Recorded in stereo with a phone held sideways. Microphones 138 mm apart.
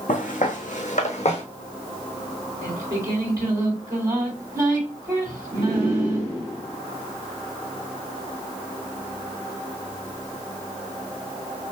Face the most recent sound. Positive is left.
turn(degrees=-25)  # may be behind; listen again after turning